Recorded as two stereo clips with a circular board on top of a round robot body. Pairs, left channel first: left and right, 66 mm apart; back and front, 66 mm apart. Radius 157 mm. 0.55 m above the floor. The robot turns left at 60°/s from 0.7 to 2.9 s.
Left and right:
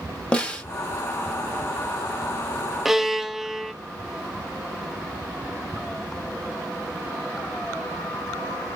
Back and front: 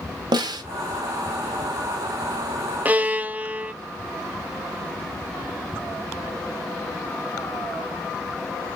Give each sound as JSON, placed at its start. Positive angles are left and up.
{"t": 0.3, "sound": "a snare drum", "azimuth_deg": 15, "distance_m": 0.8}
{"t": 2.9, "sound": "a violin", "azimuth_deg": -10, "distance_m": 0.7}